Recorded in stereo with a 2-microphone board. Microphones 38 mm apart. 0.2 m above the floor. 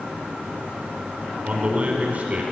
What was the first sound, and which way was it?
A man speaking, 40° right (ahead or behind).